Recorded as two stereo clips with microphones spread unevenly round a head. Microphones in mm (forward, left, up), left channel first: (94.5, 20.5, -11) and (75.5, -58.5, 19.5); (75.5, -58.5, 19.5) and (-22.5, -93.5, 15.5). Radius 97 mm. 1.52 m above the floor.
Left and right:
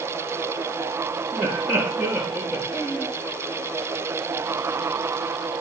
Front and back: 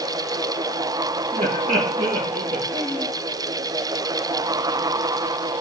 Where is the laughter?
160° left, 3 m.